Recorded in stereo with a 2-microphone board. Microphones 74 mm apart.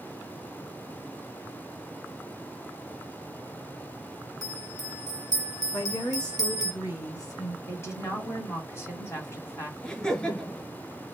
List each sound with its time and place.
4.4 s a bell: 65° left (ahead or behind), 0.6 m
5.7 s a woman speaking: 60° left (ahead or behind), 1.7 m
7.7 s a woman speaking: 35° left (ahead or behind), 1.5 m
9.8 s laughter: 15° left (ahead or behind), 1.9 m